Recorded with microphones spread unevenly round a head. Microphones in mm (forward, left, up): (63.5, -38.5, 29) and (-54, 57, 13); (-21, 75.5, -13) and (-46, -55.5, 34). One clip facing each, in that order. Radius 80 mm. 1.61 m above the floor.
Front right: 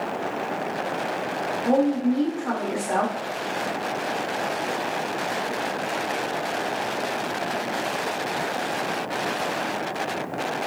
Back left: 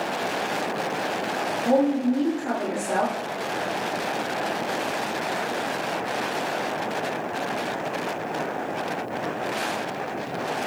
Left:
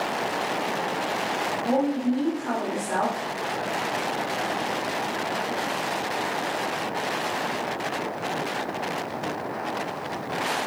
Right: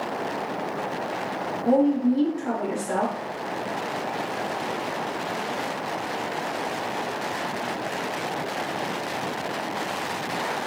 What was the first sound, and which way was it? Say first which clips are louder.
A woman speaking: even, right 5 dB; 135° right.